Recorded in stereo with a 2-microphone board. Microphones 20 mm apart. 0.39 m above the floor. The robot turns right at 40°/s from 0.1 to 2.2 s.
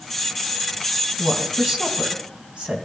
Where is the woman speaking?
25° right (ahead or behind), 2.5 m; by 2.9 s 60° right (ahead or behind), 2.5 m.